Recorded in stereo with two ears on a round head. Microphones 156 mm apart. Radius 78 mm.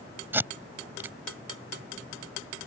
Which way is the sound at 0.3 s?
10° right (ahead or behind).